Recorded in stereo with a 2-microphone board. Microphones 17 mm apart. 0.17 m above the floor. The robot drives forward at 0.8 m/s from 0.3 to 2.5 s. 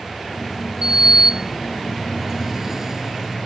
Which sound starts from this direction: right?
A sliding door, at 0.8 s.